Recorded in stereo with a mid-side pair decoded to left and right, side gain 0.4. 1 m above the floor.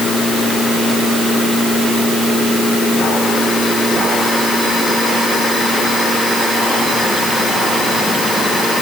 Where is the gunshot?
I don't hear a gunshot.